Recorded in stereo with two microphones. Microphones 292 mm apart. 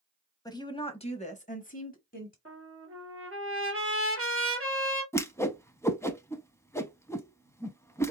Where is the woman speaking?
10° left (ahead or behind), 1.0 m; by 2.4 s 30° left (ahead or behind), 1.2 m.